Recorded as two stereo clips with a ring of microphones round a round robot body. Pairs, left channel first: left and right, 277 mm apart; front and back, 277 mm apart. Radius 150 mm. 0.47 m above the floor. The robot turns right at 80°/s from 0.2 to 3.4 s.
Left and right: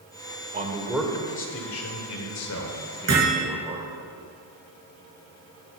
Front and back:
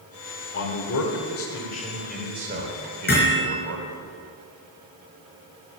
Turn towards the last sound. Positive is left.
turn(degrees=-30)